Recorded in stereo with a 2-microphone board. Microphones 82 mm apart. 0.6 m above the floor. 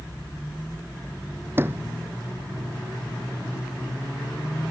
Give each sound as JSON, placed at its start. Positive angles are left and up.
{"t": 1.6, "sound": "a sliding door", "side_deg": -25}